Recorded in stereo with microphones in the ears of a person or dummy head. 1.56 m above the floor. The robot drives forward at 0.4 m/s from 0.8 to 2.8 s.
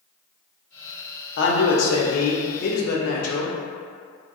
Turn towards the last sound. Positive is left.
turn(degrees=60)  # may be behind; listen again after turning